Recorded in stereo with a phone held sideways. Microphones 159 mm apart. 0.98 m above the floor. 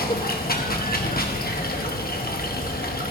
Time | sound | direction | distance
0.0 | running water | 70° left (ahead or behind) | 1.1 m